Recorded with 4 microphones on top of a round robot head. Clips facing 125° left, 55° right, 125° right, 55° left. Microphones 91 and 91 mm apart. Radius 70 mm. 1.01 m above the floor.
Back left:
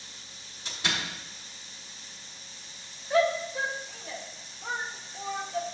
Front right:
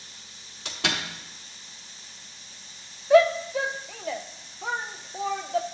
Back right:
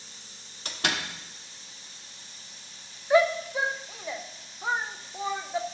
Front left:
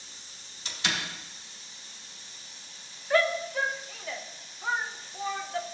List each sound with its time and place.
0.7 s a door slam: 85° right, 1.1 m
3.1 s a shout: 50° right, 0.7 m